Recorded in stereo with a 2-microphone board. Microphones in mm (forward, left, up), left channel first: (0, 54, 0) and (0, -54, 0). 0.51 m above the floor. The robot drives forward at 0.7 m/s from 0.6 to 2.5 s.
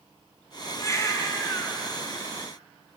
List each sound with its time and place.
0.8 s a baby crying: 30° left (ahead or behind), 3 m; by 1.8 s 25° left (ahead or behind), 3.5 m